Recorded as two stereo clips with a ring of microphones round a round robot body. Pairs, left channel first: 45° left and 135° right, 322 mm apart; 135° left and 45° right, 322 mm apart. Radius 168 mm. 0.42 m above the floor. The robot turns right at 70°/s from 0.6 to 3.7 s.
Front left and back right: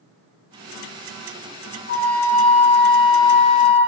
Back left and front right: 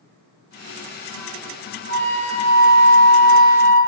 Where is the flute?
150° right, 1.3 m; by 3.8 s 25° right, 1.3 m.